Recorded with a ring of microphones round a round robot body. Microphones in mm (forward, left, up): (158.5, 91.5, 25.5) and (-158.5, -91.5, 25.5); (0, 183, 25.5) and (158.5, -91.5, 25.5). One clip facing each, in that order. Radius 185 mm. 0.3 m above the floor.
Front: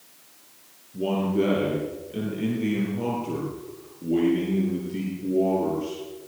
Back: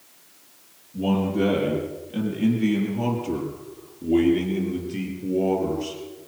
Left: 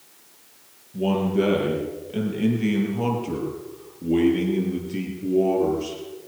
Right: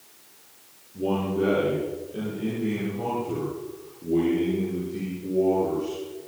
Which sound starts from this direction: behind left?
A man speaking, at 0.9 s.